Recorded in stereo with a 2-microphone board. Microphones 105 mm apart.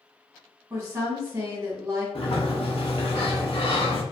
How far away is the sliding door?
About 0.7 m.